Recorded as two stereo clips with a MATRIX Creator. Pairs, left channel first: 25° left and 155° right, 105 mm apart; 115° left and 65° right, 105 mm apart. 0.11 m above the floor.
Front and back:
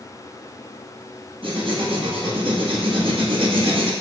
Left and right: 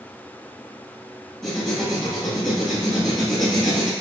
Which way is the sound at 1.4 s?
165° right.